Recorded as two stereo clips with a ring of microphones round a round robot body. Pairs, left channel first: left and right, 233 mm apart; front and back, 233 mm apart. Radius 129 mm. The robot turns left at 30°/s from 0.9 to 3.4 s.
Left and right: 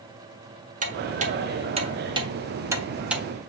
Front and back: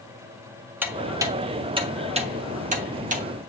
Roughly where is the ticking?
Right.